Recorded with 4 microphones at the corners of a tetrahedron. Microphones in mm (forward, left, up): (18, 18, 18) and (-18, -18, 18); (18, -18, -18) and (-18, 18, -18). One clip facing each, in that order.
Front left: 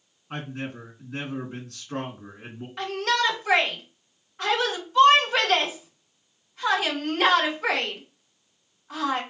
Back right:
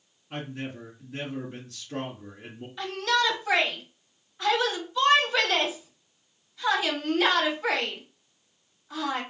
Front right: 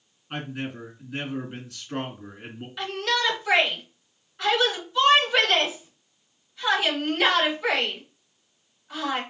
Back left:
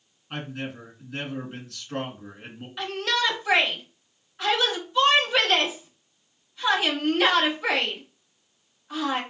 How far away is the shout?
About 2.5 m.